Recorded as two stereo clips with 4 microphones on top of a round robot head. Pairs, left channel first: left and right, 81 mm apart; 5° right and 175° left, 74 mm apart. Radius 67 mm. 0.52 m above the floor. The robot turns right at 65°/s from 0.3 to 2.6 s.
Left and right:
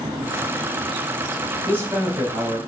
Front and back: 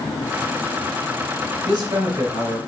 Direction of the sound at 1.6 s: 155° right.